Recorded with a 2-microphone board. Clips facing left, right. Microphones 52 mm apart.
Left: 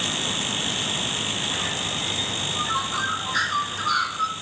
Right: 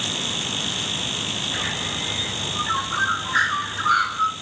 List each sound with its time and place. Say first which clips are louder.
1.5 s a bird: right 1 dB; 25° right (ahead or behind), 1.6 m